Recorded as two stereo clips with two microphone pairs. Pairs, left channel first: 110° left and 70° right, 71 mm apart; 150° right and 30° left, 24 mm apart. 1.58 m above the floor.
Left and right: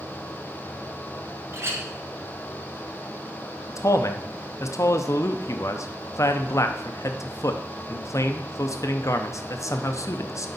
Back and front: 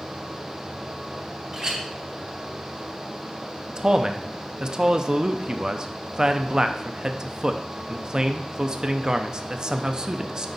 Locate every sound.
1.5 s a clink: 30° right, 1.2 m
3.7 s a man speaking: 85° left, 0.6 m